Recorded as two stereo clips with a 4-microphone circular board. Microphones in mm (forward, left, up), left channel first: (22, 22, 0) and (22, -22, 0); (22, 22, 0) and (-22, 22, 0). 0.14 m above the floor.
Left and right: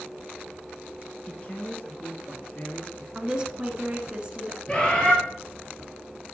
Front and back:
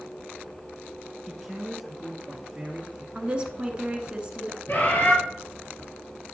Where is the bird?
25° left, 3 m.